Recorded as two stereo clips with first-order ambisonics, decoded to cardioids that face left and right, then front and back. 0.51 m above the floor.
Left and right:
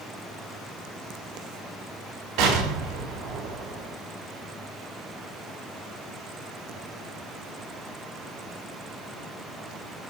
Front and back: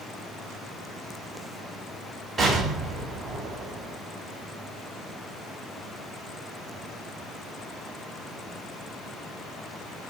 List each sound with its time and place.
2.4 s an explosion: 110° right, 3.5 m